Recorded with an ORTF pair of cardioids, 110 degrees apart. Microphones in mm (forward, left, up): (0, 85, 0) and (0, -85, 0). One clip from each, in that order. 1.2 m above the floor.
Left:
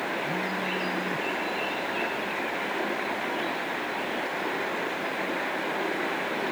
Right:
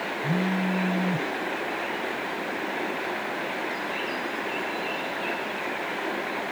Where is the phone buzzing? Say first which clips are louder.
Right 1 dB; 65° right.